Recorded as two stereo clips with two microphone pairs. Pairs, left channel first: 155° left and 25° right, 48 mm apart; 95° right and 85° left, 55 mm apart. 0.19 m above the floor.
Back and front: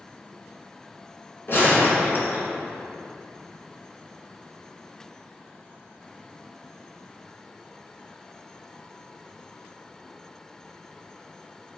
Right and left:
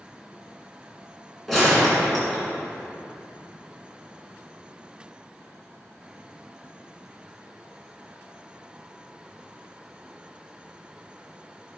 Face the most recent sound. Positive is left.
turn(degrees=180)